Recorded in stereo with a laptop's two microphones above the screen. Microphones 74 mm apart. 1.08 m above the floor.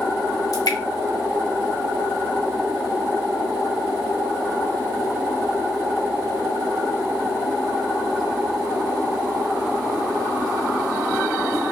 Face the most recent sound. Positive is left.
turn(degrees=55)  # may be behind; listen again after turning